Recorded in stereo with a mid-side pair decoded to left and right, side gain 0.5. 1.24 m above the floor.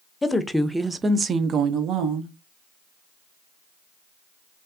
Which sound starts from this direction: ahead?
A woman speaking, at 0.2 s.